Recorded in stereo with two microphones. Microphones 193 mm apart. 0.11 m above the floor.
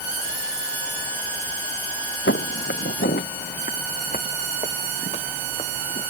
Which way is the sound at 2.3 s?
75° left (ahead or behind).